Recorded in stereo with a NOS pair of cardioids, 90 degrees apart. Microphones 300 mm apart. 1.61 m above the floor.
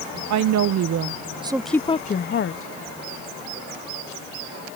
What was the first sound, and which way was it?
A woman speaking, 65° right.